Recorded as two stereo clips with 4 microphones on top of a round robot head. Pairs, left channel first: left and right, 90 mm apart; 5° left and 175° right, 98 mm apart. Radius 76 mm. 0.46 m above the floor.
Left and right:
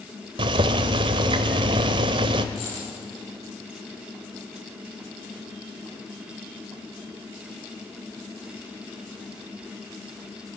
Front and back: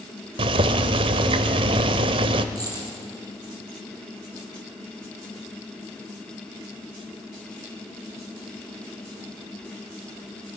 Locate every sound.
0.4 s boiling: 130° right, 0.7 m
2.5 s a dropped coin: 135° left, 6 m